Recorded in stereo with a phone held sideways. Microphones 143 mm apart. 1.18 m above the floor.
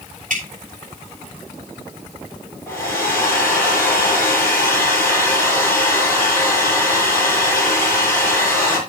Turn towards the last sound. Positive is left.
turn(degrees=20)  # may be behind; listen again after turning